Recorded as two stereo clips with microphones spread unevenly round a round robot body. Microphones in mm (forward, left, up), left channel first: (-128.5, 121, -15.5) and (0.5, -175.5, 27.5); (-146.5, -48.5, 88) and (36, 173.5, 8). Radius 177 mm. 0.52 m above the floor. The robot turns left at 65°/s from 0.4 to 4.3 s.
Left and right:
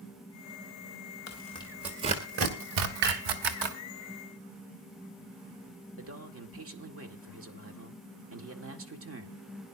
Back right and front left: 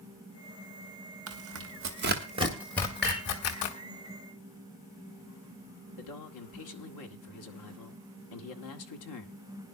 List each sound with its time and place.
1.3 s tearing paper: 60° left, 1.6 m; by 3.8 s 100° right, 1.6 m
3.0 s dishes clattering: 40° right, 6 m; by 3.2 s 55° right, 6 m
6.0 s a man speaking: 110° right, 1.7 m